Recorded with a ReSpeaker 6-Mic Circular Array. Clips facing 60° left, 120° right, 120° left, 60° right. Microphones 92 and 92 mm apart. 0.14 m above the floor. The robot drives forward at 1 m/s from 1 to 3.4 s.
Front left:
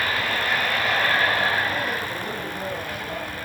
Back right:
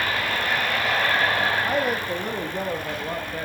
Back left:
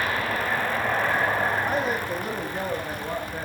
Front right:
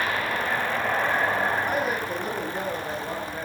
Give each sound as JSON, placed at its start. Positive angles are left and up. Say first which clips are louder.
{"t": 1.6, "sound": "a woman speaking", "louder": "back right 3 dB, back left 1 dB", "azimuth_deg": -145, "distance_m": 5.5}